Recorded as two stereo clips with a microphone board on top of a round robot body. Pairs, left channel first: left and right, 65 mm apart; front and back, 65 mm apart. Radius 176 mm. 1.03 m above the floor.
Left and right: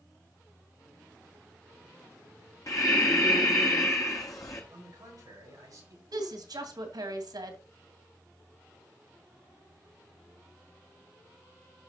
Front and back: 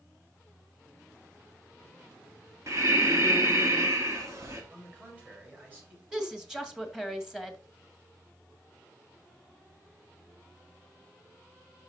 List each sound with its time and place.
2.7 s breathing: 130° left, 1.0 m
4.7 s a man speaking: 115° right, 7 m
6.1 s a woman speaking: 95° right, 2 m